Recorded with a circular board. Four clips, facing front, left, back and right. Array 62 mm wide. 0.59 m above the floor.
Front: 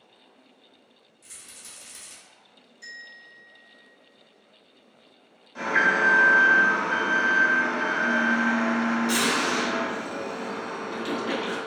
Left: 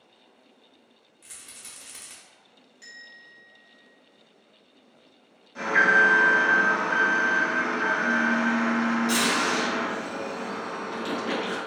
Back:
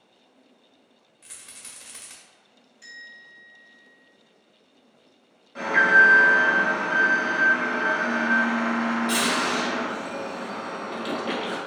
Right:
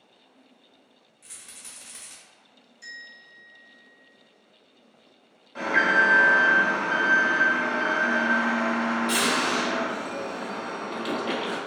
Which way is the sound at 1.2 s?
160° left.